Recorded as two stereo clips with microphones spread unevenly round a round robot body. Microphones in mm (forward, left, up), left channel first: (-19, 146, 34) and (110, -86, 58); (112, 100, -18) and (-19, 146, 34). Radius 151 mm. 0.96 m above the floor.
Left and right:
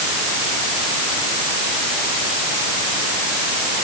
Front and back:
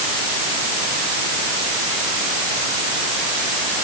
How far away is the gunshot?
I don't hear a gunshot.